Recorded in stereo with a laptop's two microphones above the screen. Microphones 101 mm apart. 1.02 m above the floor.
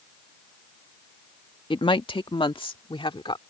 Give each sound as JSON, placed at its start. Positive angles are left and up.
{"t": 1.7, "sound": "a woman speaking", "side_deg": 55}